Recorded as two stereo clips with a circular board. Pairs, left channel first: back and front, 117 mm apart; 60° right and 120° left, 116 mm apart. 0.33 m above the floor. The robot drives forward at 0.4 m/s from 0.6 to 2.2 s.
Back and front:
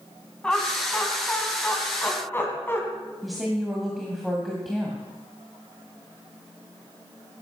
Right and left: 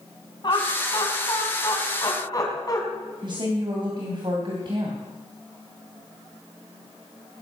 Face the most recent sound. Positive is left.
turn(degrees=90)